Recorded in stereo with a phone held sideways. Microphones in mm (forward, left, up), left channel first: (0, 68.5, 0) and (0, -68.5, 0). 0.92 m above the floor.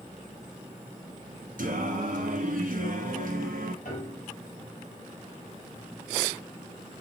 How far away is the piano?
About 4 m.